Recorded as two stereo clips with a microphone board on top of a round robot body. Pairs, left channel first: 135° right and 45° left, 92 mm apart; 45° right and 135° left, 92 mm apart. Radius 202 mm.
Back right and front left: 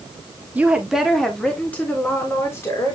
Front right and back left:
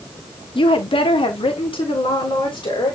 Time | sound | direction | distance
0.6 | a woman speaking | 30° right | 1.6 m